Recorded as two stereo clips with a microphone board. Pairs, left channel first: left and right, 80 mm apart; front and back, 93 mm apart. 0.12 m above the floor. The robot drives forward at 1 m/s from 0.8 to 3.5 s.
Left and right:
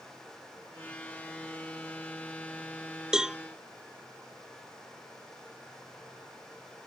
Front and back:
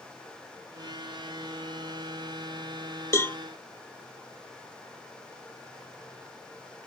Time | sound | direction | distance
3.1 | a cowbell | 15° right | ?